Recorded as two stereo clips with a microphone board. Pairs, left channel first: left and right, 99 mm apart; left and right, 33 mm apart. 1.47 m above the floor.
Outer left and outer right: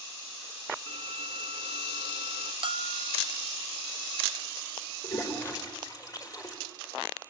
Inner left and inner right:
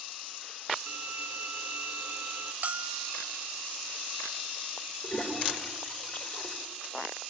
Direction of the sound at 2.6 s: 55° right (ahead or behind).